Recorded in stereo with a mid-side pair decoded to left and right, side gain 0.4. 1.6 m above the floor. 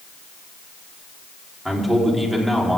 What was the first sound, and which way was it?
A man speaking, 5° left.